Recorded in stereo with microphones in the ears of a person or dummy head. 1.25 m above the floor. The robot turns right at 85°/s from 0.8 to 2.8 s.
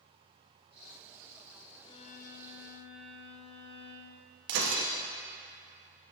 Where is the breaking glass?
65° right (ahead or behind), 0.9 m.